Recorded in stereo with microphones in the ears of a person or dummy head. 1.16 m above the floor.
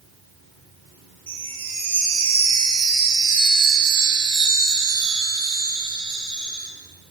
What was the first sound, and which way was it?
A chime, 30° right (ahead or behind).